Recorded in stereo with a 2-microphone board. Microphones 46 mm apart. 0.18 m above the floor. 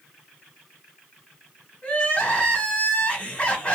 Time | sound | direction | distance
1.8 | crying | 25° left (ahead or behind) | 1.6 m